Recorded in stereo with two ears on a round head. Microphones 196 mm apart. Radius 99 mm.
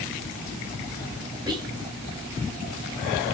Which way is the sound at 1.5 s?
10° right (ahead or behind).